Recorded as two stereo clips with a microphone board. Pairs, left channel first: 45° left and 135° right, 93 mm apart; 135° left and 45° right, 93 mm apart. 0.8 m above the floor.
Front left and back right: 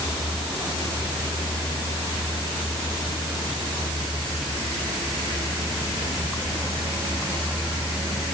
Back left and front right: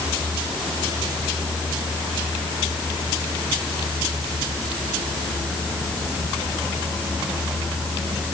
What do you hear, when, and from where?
Only background noise.